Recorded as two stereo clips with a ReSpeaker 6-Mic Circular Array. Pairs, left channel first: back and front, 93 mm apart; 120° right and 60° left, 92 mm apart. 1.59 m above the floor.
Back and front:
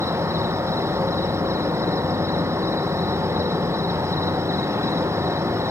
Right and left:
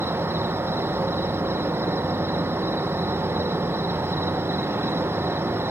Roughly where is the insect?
Ahead.